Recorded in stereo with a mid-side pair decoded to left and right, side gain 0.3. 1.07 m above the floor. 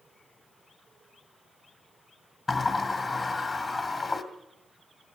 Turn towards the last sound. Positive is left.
turn(degrees=55)